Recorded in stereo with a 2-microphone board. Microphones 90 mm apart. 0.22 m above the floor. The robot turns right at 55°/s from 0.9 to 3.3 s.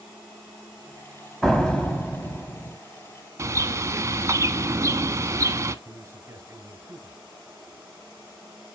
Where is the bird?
35° right (ahead or behind), 0.6 m.